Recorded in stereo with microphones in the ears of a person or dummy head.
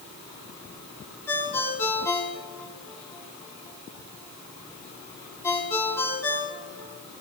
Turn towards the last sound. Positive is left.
turn(degrees=15)  # may be behind; listen again after turning